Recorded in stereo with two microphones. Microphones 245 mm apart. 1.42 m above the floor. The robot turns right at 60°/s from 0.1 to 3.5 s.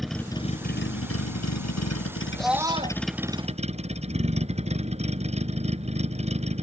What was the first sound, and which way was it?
A vehicle, straight ahead.